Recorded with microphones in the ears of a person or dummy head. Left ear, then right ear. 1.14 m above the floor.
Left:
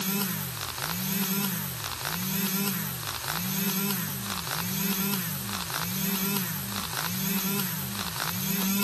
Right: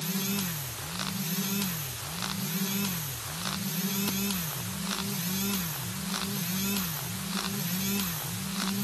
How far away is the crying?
No crying in this recording.